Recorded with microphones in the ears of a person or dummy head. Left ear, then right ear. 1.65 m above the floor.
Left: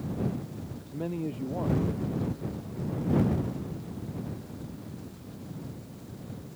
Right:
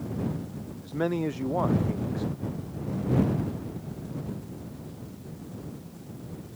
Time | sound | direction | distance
0.8 | a man speaking | 55° right (ahead or behind) | ?